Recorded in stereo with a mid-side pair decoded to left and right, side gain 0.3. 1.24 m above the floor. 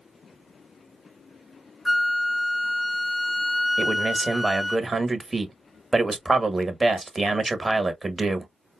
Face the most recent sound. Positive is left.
turn(degrees=-30)